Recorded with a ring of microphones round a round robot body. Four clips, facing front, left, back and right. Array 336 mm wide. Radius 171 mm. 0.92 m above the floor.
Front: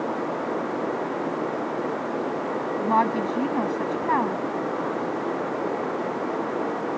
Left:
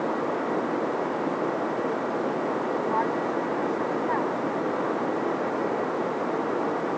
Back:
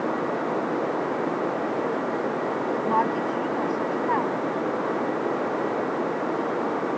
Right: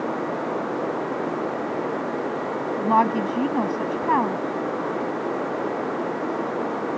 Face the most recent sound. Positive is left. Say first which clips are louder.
# right 10 dB, front 3 dB
turn(degrees=-65)